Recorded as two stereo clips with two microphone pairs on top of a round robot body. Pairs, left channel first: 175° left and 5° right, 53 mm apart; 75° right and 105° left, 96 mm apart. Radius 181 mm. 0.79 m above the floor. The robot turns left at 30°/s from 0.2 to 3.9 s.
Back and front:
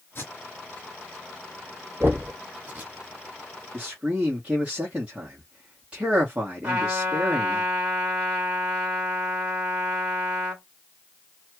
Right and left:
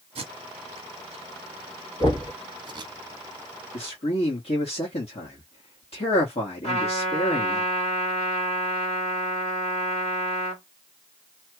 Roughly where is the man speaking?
Ahead right.